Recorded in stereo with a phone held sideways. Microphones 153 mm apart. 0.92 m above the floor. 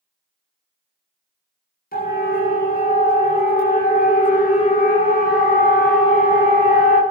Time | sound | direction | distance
1.9 | a siren | 85° left | 8.5 m